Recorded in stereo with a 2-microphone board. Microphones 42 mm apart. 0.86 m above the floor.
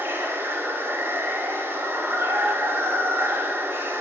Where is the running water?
80° right, 1.5 m.